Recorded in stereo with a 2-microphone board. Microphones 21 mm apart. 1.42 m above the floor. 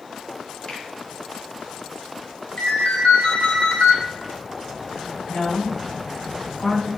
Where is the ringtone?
70° left (ahead or behind), 2.5 m.